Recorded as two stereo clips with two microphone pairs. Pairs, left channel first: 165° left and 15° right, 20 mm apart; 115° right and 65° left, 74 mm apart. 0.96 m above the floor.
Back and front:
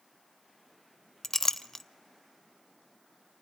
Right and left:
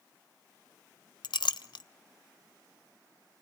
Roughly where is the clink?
Behind right.